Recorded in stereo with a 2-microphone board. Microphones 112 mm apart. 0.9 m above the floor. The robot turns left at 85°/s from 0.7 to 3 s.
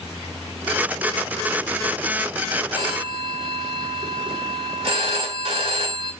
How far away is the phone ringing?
About 2.0 m.